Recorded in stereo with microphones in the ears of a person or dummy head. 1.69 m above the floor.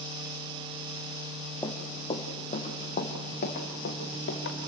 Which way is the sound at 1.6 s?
15° left (ahead or behind).